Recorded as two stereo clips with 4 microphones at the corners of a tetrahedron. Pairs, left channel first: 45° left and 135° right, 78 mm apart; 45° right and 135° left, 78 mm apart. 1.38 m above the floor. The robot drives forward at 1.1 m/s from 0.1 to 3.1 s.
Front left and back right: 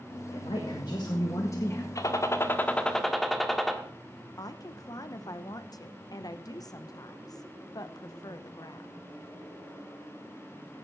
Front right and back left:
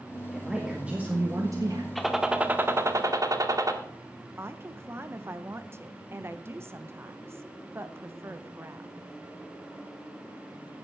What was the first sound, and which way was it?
A man speaking, 45° left.